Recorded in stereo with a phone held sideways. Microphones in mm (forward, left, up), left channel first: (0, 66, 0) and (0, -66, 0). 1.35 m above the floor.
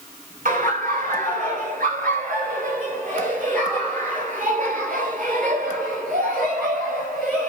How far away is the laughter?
About 5 m.